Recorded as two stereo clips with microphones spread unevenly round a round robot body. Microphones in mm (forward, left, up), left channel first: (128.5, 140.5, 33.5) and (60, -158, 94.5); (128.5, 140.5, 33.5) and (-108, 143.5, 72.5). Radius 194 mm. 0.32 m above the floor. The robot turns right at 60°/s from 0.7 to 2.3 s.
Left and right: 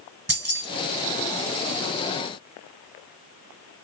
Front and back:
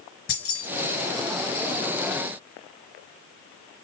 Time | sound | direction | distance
0.3 | keys jangling | 40° right | 4 m